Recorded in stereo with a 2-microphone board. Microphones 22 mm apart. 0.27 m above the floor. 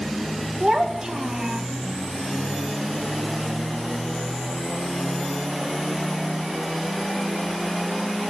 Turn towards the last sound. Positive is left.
turn(degrees=-50)  # may be behind; listen again after turning